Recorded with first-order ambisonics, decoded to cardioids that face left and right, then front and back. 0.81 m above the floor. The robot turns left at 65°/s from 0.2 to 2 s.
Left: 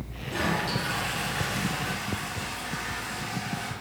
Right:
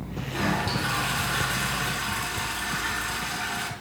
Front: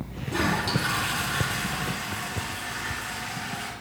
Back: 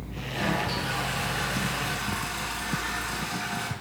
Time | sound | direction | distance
0.3 | a toilet flushing | straight ahead | 3.5 m